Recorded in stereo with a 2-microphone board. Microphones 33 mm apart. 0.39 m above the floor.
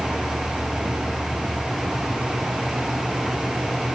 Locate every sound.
Only background noise.